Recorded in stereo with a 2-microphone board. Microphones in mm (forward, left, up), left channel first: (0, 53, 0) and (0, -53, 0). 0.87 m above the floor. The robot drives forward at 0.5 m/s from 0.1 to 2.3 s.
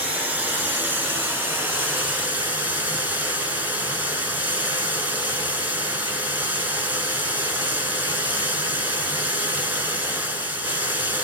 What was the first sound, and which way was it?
Running water, 15° right (ahead or behind).